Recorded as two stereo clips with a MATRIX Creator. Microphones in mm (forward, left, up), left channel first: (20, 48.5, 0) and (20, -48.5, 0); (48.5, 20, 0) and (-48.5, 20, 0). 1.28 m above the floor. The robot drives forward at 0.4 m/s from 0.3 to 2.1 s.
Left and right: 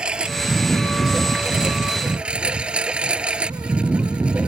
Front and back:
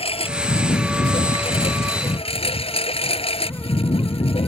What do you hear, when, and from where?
0.0 s a lawn mower: 10° right